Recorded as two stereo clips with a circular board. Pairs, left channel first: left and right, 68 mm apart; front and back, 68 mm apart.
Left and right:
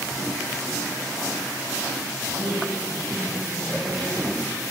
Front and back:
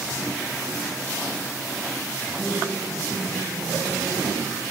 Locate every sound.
2.3 s a woman speaking: 65° right, 8 m